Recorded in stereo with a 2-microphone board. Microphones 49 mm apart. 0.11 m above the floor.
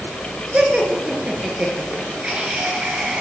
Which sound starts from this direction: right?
Laughter, at 0.5 s.